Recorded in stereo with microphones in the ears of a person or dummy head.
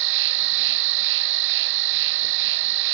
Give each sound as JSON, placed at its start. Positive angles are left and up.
{"t": 0.0, "sound": "an insect", "side_deg": -65}